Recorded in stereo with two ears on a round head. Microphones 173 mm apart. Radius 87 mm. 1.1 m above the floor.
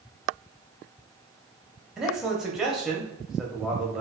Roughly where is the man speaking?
Centre.